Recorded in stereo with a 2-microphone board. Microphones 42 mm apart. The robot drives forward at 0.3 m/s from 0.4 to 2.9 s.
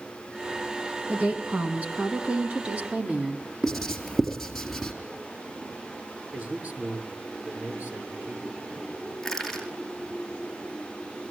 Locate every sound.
1.1 s a woman speaking: 45° right (ahead or behind), 2.5 m; by 3.5 s 35° right (ahead or behind), 3 m
3.6 s writing: 5° left (ahead or behind), 4.5 m
6.3 s a man speaking: 45° right (ahead or behind), 6.5 m
9.2 s crushing: 5° left (ahead or behind), 5 m